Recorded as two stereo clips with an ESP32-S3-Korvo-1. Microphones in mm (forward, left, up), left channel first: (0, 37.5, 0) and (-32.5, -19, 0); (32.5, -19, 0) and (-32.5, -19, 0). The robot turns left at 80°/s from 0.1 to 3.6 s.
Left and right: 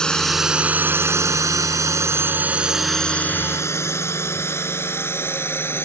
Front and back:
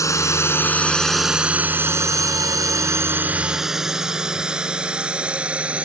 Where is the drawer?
No drawer in this recording.